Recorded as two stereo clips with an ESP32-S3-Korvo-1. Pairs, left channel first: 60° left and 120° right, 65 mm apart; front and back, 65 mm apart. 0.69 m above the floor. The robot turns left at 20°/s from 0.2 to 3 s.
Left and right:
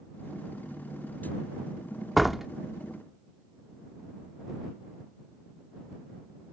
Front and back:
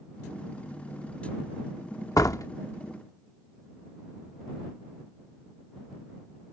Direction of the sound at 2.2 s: 30° right.